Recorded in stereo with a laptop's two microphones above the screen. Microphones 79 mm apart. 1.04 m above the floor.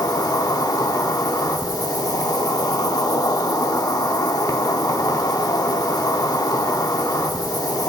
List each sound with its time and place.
0.0 s an insect: 50° left (ahead or behind), 0.8 m